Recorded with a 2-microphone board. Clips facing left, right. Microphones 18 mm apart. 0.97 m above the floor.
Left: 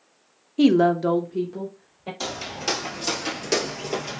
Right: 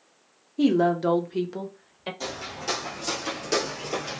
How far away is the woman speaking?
About 0.6 m.